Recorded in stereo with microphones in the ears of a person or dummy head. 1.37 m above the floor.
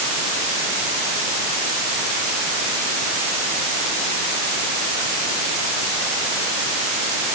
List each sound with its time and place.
Only background noise.